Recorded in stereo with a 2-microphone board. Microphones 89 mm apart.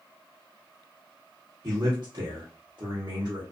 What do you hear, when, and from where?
1.6 s a man speaking: 45° right (ahead or behind), 1.1 m